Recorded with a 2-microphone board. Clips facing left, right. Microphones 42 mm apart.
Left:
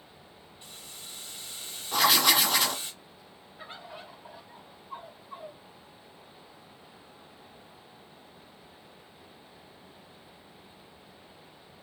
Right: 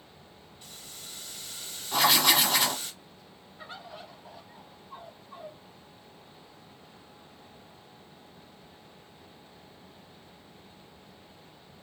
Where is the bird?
25° left (ahead or behind), 1.6 m.